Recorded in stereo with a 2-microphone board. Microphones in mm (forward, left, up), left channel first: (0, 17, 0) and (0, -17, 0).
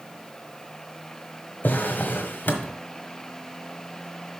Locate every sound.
1.6 s a drawer: 75° left (ahead or behind), 1.4 m